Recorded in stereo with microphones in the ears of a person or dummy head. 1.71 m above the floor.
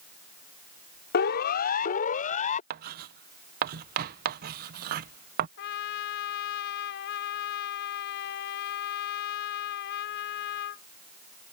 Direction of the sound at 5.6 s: 50° left (ahead or behind).